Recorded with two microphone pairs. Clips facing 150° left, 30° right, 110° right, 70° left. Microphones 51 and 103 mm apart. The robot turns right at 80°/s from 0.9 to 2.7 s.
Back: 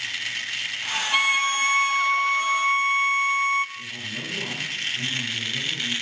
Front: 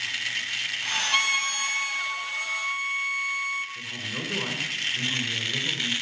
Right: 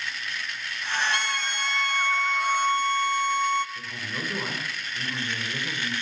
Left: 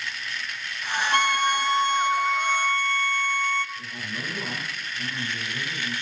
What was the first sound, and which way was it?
A violin, 60° left.